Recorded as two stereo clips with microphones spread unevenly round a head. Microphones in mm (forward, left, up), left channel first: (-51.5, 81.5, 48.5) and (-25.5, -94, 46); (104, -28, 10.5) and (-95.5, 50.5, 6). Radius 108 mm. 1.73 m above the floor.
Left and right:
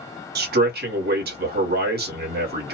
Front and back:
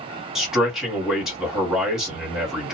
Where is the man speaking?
115° right, 1.5 m.